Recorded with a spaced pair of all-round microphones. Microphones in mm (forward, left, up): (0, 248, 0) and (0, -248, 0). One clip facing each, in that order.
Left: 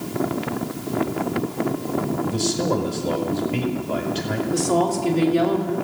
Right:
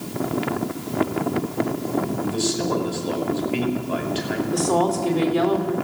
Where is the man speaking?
60° left (ahead or behind), 5 m.